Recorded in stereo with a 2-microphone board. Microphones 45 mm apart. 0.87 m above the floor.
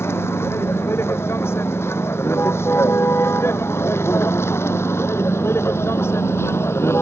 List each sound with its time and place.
0.0 s a vehicle: 70° left (ahead or behind); by 7.0 s 75° left (ahead or behind)